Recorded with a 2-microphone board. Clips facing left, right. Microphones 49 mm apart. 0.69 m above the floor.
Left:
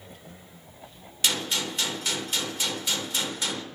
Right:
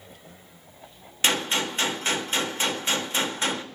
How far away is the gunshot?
About 0.5 m.